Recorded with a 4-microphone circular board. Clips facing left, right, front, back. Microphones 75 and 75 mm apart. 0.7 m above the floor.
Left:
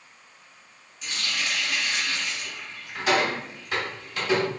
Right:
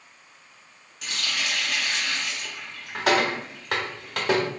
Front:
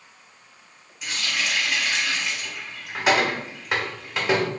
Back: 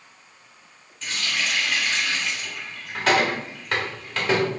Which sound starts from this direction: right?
A running tap, at 1.0 s.